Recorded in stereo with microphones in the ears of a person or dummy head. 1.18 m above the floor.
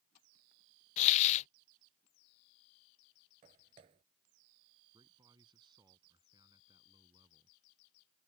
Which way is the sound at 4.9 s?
25° right (ahead or behind).